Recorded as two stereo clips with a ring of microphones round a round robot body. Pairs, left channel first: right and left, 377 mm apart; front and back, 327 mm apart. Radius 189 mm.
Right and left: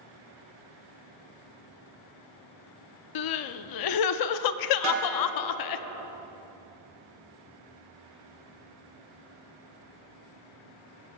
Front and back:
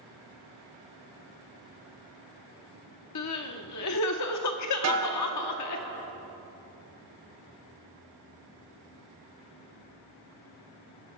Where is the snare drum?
140° left, 3.5 m.